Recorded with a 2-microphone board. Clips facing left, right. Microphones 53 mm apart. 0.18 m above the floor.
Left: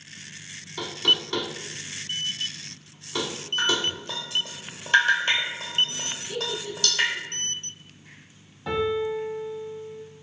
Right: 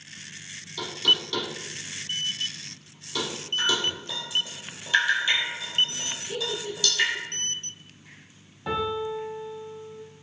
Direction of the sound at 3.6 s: 50° left (ahead or behind).